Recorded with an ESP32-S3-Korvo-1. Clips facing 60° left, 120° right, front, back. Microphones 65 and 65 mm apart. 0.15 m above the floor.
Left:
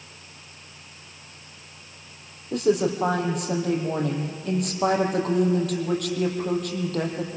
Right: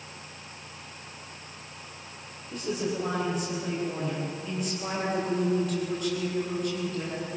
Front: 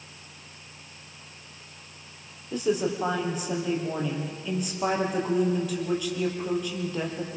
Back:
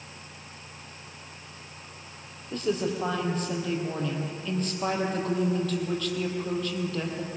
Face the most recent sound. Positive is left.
turn(degrees=80)